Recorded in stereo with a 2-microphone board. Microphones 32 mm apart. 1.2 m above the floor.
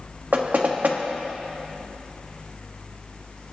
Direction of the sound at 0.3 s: 55° right (ahead or behind).